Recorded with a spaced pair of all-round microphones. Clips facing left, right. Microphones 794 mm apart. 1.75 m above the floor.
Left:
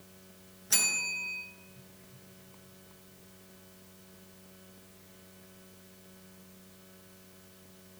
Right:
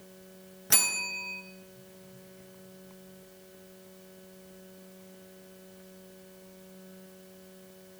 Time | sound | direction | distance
0.7 | a bell | 80° right | 0.7 m